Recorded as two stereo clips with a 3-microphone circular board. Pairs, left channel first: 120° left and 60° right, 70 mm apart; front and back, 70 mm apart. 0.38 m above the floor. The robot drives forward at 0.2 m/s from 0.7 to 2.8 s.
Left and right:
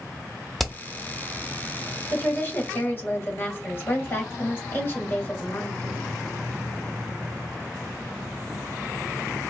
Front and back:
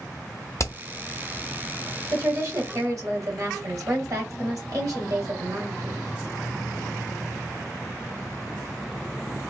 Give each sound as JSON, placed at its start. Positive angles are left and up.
{"t": 0.6, "sound": "hammering", "azimuth_deg": 30, "distance_m": 0.8}
{"t": 2.1, "sound": "a woman speaking", "azimuth_deg": 170, "distance_m": 2.0}